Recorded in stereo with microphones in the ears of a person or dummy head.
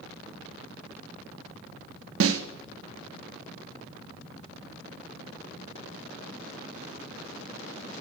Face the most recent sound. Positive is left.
turn(degrees=-80)